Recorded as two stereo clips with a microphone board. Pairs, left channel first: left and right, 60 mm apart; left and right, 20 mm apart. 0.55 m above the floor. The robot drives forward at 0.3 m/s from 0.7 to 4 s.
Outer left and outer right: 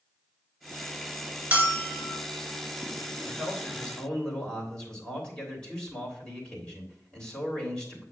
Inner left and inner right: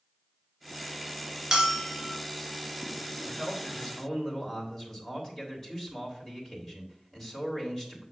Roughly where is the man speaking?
Centre.